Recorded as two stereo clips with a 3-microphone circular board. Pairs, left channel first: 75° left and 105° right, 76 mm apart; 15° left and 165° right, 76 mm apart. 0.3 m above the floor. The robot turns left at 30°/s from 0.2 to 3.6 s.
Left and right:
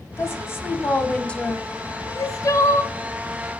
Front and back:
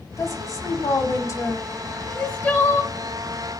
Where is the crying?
75° left, 2.0 m; by 2.9 s 50° left, 2.0 m.